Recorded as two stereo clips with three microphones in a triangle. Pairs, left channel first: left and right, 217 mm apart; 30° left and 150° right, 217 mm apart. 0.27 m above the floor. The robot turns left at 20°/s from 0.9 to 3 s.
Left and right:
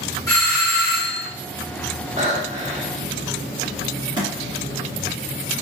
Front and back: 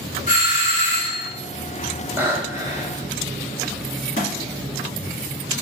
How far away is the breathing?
About 0.7 m.